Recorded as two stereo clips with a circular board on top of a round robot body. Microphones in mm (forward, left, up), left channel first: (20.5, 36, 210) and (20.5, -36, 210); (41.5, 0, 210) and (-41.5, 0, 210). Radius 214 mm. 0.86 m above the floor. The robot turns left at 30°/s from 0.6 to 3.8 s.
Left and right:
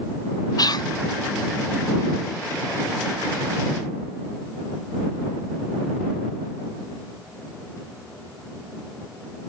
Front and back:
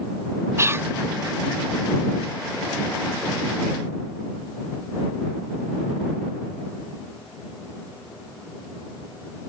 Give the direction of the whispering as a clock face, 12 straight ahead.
8 o'clock.